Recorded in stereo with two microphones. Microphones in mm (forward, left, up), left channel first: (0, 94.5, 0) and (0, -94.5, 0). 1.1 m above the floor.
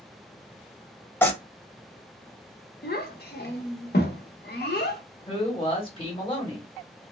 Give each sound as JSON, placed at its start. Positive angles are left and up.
{"t": 1.2, "sound": "tearing paper", "side_deg": 10, "distance_m": 0.6}
{"t": 2.8, "sound": "a child speaking", "side_deg": 55, "distance_m": 0.8}
{"t": 5.3, "sound": "a man speaking", "side_deg": 25, "distance_m": 1.3}